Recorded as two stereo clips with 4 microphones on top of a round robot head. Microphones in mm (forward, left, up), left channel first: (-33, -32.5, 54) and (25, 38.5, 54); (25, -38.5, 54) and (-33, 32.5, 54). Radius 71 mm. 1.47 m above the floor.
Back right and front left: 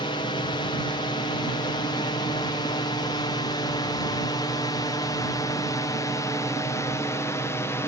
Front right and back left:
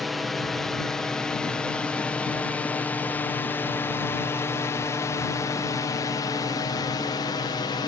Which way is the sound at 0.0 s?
140° right.